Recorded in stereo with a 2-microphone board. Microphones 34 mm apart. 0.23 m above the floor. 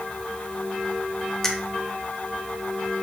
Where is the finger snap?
15° left (ahead or behind), 0.8 m.